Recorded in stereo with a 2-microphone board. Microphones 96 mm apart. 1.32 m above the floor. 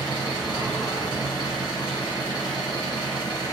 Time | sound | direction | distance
0.0 | an engine running | 50° left (ahead or behind) | 1.7 m